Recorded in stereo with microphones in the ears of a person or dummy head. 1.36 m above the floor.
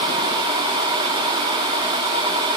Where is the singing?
No singing in this recording.